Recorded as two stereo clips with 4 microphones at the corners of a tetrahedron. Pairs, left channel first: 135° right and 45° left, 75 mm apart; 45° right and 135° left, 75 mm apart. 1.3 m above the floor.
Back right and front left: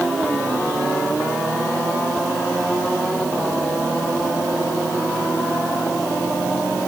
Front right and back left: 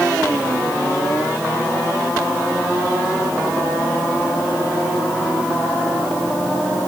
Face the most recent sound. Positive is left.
No sound to turn to.